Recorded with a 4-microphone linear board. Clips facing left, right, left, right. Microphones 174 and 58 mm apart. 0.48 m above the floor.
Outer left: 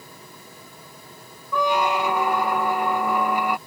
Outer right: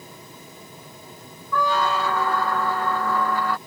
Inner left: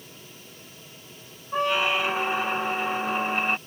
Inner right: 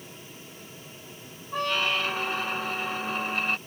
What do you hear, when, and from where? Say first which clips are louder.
1.5 s a squeak: outer left 1 dB, inner left 3 dB; 15° left (ahead or behind)